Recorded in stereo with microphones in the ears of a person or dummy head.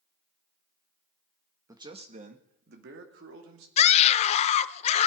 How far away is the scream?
About 0.7 m.